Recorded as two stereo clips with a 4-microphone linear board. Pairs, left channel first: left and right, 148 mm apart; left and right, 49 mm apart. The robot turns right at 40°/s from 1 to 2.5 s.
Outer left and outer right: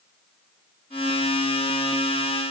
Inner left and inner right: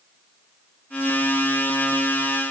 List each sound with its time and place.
Only background noise.